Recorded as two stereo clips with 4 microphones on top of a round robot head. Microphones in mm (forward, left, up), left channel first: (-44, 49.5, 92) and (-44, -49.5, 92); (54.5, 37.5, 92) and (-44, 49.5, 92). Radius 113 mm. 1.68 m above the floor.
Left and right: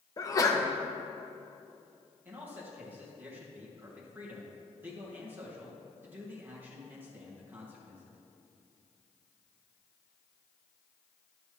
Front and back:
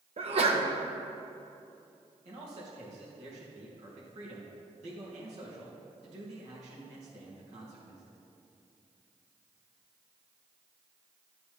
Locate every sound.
0.2 s a sneeze: 150° left, 1.6 m
2.2 s a man speaking: 160° right, 3 m